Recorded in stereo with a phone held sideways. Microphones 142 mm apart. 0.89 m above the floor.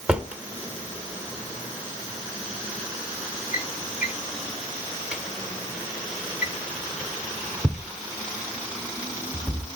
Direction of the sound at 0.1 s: 10° right (ahead or behind).